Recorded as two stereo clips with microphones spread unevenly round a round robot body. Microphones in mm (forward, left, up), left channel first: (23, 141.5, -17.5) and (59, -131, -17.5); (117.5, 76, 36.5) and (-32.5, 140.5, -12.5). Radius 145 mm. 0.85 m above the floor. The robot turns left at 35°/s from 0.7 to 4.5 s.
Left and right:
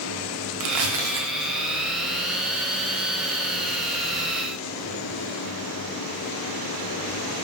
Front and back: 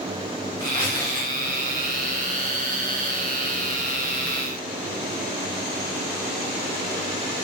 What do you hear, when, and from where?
0.6 s tearing paper: 90° right, 0.6 m; by 2.2 s 145° right, 0.6 m